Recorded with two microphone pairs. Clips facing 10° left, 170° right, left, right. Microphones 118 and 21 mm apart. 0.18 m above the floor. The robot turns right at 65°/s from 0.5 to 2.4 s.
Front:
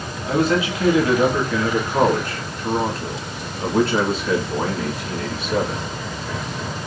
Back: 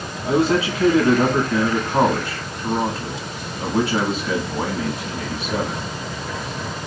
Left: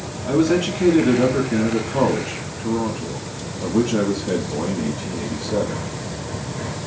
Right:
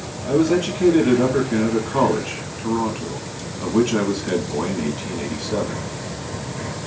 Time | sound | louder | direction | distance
0.3 | a man speaking | back 1 dB, even | 155° left | 1.5 m